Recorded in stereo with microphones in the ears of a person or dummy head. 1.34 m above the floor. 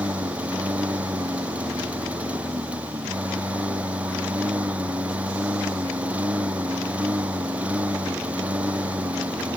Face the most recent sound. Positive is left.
turn(degrees=-10)  # may be behind; listen again after turning